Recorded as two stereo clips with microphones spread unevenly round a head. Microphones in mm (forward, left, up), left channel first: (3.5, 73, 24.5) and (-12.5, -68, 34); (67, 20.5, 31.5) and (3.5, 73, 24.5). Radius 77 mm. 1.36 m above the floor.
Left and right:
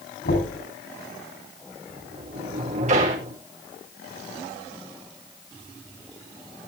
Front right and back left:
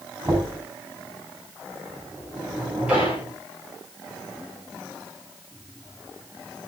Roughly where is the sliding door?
Behind right.